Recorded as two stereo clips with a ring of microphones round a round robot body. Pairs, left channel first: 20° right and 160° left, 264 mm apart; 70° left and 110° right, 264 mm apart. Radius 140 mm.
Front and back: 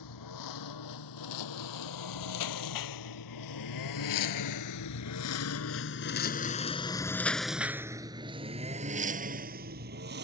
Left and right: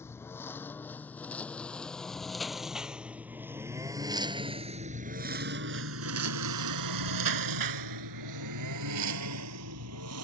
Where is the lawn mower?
15° right; by 10.2 s 150° right.